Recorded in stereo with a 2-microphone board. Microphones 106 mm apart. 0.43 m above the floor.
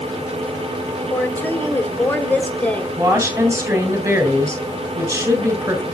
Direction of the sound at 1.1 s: 20° left (ahead or behind).